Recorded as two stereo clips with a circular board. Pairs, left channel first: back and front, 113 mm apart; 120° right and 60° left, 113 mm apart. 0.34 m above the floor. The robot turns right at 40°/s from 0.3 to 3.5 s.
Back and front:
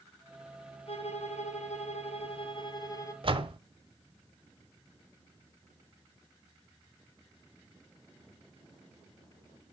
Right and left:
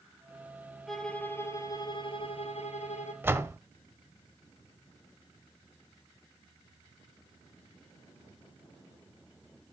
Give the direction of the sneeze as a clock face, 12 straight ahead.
No sneeze in this recording.